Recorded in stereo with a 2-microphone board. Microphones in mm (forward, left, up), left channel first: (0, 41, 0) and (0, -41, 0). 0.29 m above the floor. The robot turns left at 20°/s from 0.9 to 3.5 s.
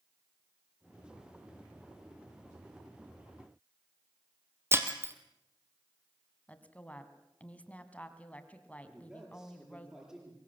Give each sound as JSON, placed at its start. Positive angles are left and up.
{"t": 4.7, "sound": "breaking glass", "side_deg": -30, "distance_m": 2.5}
{"t": 6.5, "sound": "a woman speaking", "side_deg": 15, "distance_m": 2.5}
{"t": 8.9, "sound": "a man speaking", "side_deg": -10, "distance_m": 7.5}